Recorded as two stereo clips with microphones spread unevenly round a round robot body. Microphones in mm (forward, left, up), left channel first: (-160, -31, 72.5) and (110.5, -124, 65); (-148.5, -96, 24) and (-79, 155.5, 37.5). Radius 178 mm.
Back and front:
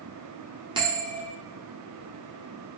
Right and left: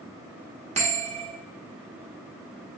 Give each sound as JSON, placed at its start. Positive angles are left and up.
{"t": 0.8, "sound": "a bell", "azimuth_deg": 30, "distance_m": 1.3}